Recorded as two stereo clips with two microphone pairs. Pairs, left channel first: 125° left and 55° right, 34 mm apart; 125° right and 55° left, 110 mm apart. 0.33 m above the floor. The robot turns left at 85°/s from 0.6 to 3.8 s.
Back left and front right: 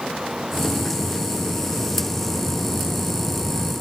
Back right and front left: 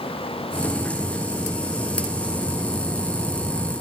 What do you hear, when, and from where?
Only background noise.